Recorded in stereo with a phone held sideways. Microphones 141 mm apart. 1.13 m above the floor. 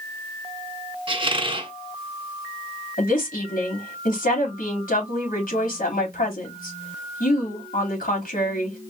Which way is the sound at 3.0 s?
80° left.